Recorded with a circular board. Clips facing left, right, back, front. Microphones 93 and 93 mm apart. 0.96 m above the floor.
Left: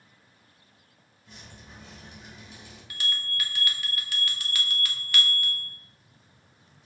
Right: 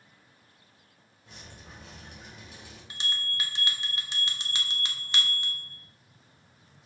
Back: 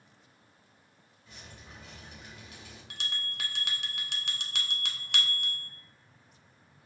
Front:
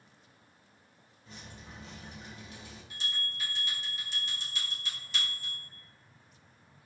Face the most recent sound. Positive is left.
turn(degrees=-155)